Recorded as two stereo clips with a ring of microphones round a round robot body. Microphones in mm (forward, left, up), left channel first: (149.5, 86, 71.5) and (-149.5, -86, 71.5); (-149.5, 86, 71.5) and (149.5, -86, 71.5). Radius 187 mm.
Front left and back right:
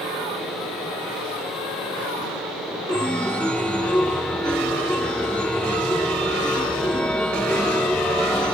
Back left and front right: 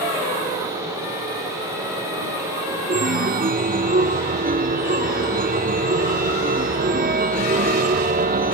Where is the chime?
55° right.